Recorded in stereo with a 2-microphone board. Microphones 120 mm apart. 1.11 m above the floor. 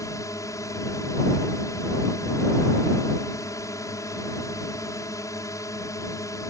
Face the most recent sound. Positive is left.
turn(degrees=25)  # may be behind; listen again after turning